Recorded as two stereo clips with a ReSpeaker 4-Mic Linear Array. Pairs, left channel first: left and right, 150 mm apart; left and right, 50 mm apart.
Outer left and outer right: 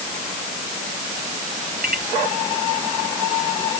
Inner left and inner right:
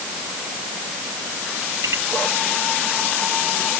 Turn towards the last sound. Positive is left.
turn(degrees=-85)